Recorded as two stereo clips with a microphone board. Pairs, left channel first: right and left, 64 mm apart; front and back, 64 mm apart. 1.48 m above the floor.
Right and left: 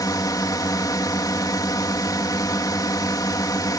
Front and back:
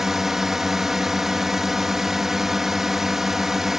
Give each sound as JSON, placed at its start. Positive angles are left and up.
{"t": 0.0, "sound": "a drone", "azimuth_deg": -95}